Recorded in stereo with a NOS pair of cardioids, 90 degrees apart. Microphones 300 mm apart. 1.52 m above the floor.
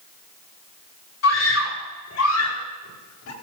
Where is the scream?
60° left, 8 m; by 3.3 s 65° left, 9.5 m.